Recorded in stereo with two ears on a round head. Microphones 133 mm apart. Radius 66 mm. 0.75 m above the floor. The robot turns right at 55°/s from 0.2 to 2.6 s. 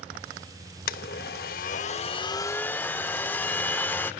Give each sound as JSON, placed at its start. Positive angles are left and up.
{"t": 0.9, "sound": "a blender", "azimuth_deg": 70, "distance_m": 0.6}